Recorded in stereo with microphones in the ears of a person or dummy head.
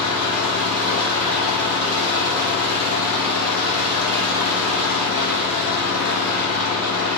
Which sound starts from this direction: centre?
An engine running, at 0.0 s.